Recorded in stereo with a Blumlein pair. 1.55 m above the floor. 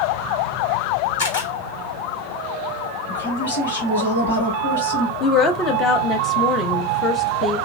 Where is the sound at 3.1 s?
70° left, 1.6 m.